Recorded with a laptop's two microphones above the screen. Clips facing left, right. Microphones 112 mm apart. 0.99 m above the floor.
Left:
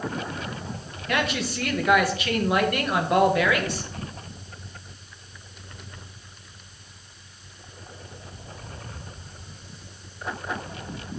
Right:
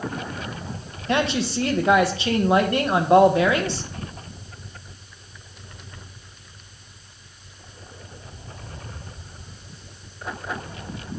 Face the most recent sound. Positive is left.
turn(degrees=-30)  # may be behind; listen again after turning